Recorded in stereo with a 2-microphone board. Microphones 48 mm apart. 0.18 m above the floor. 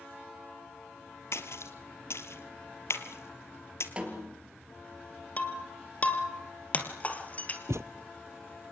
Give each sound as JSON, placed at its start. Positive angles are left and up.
{"t": 1.3, "sound": "a splash", "side_deg": 65, "distance_m": 1.7}
{"t": 4.0, "sound": "a snare drum", "side_deg": -20, "distance_m": 3.5}
{"t": 5.4, "sound": "breaking glass", "side_deg": 35, "distance_m": 2.5}
{"t": 7.7, "sound": "a thud", "side_deg": -80, "distance_m": 0.5}